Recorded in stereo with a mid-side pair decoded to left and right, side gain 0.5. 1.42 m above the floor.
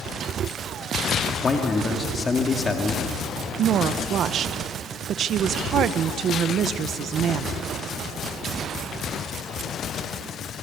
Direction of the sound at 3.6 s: 55° right.